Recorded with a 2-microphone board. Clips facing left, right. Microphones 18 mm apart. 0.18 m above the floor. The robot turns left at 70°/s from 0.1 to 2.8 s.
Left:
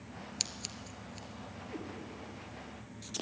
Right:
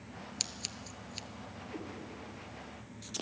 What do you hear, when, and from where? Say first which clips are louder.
0.4 s scissors: even; 5° left (ahead or behind), 0.7 m; by 1.3 s 55° right (ahead or behind), 0.7 m
1.7 s a cat meowing: even; 30° left (ahead or behind), 3.5 m; by 1.9 s 20° left (ahead or behind), 3.5 m